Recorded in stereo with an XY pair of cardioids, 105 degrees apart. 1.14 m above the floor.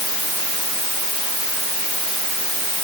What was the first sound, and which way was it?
Only background noise.